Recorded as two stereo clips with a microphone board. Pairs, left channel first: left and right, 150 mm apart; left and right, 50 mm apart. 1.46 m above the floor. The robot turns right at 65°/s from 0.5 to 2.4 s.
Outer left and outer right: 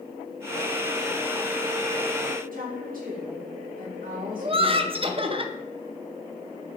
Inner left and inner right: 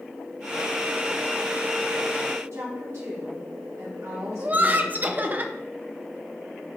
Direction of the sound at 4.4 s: 35° right (ahead or behind).